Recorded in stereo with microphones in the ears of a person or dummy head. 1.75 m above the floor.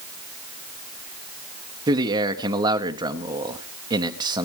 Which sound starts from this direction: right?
A man speaking, at 1.9 s.